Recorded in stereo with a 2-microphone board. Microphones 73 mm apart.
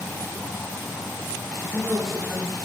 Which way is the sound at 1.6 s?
Centre (ahead or behind).